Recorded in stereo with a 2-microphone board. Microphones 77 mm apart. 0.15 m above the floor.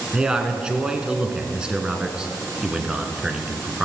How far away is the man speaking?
About 1.5 m.